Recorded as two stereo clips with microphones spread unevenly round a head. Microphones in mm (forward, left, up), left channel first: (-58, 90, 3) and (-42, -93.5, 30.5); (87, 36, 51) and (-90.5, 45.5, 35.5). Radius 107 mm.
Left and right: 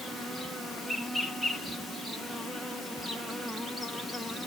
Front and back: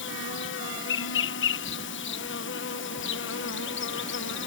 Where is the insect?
5° left.